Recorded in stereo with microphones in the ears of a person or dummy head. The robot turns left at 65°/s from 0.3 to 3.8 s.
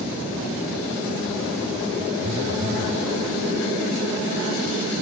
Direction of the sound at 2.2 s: 25° right.